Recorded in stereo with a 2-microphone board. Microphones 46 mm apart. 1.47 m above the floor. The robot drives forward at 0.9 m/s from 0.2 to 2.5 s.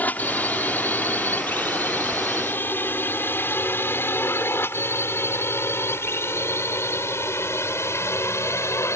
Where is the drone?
40° left (ahead or behind); by 9.0 s 70° left (ahead or behind).